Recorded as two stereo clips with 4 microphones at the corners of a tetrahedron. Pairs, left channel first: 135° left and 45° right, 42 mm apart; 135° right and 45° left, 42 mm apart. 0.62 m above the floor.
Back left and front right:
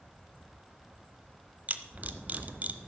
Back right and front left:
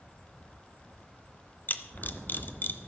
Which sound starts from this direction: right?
A camera shutter, at 1.7 s.